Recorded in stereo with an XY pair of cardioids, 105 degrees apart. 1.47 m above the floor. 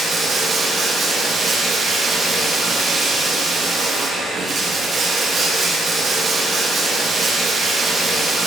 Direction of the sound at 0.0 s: 50° right.